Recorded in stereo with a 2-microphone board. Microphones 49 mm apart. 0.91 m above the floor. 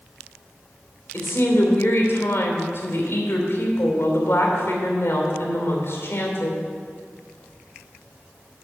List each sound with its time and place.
1.1 s a woman speaking: 45° left (ahead or behind), 2.5 m